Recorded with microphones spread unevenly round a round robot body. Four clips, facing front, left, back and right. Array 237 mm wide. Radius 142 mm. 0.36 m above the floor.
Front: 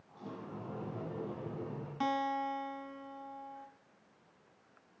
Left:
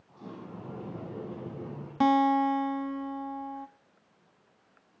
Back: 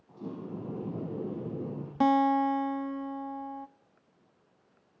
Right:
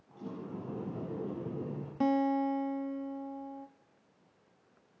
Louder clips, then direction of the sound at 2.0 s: Left 6 dB, back 10 dB; 115° left.